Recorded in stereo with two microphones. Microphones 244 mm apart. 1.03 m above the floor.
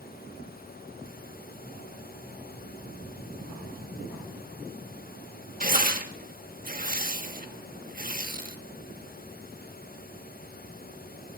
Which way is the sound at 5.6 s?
35° right (ahead or behind).